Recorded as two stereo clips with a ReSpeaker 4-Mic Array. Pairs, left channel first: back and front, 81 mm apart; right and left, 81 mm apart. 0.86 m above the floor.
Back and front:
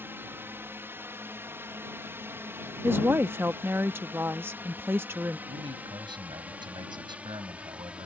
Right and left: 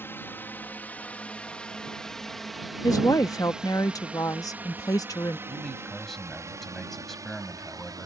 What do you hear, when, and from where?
0.0 s a drone: 45° right; by 8.1 s 75° left
2.8 s a woman speaking: 55° right
5.5 s a man speaking: 5° right